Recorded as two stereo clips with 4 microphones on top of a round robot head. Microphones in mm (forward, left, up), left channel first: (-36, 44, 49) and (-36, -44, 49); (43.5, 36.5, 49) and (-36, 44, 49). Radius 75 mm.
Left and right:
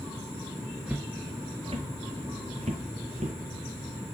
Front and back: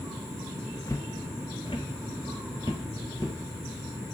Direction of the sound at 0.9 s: 10° right.